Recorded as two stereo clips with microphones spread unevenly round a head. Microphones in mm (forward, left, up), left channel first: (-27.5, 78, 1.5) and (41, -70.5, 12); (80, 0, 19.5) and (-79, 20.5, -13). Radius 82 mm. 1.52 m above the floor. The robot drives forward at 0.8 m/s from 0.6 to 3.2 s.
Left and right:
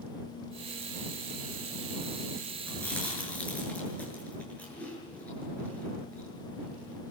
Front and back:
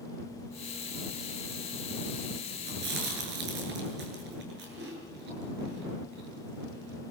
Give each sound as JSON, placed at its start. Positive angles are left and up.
{"t": 2.7, "sound": "chewing", "azimuth_deg": -160, "distance_m": 7.5}